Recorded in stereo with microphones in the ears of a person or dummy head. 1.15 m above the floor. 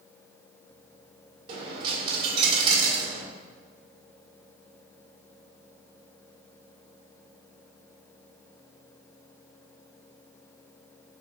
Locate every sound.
1.5 s a dropped coin: 30° right (ahead or behind), 1.3 m